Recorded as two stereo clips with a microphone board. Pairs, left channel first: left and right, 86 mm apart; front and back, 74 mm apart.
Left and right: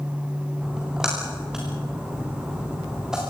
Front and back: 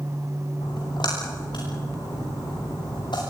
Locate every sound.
0.6 s a splash: 5° right, 10 m